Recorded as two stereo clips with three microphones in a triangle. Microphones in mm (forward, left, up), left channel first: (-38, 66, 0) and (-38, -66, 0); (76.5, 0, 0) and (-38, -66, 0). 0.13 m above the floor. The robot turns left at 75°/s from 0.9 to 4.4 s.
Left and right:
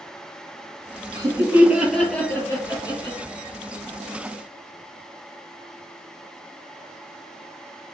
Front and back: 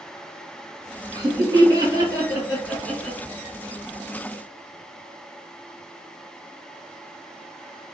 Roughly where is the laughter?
Behind right.